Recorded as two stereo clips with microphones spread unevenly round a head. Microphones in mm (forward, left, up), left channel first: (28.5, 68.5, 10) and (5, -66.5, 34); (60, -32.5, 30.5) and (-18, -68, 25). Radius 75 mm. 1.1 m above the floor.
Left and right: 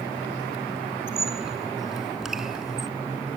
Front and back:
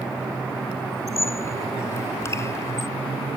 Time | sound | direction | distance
1.1 | a squeak | 20° right | ?